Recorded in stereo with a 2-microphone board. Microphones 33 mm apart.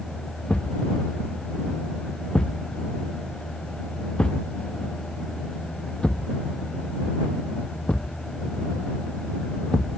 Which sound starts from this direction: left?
A thud, at 0.5 s.